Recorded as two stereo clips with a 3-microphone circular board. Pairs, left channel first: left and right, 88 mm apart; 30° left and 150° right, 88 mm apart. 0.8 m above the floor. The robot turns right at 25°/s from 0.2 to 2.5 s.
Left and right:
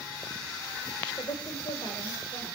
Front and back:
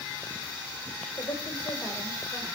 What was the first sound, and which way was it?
A woman speaking, 60° left.